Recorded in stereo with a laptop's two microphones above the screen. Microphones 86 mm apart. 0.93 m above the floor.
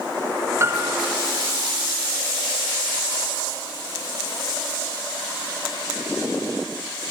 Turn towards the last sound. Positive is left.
turn(degrees=-30)  # may be behind; listen again after turning